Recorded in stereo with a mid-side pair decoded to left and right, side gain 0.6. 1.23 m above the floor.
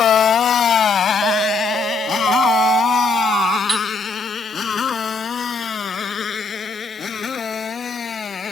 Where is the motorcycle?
45° left; by 8.5 s 30° left.